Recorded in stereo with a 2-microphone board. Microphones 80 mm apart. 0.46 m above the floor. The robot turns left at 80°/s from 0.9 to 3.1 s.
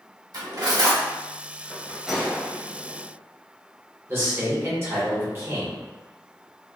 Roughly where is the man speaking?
Right.